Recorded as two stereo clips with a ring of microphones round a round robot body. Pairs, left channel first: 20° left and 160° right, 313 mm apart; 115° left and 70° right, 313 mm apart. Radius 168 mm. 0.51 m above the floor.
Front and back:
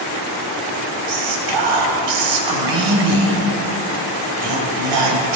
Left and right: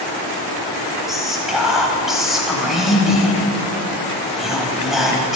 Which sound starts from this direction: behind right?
Whispering, at 1.1 s.